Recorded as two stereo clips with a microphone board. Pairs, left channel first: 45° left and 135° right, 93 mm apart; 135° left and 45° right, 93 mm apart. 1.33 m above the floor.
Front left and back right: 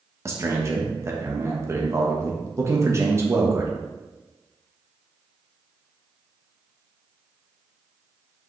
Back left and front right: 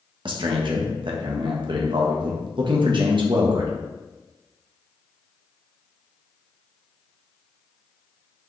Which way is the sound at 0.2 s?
75° right.